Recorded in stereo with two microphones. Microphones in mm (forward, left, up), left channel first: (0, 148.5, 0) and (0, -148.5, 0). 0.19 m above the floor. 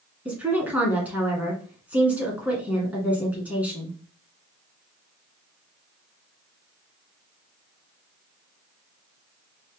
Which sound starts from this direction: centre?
A woman speaking, at 0.2 s.